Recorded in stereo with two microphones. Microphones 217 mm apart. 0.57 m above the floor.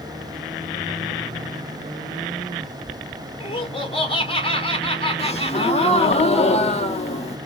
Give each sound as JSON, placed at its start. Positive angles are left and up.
{"t": 3.4, "sound": "laughter", "side_deg": 25, "distance_m": 1.3}
{"t": 5.2, "sound": "a gasp", "side_deg": 30, "distance_m": 0.8}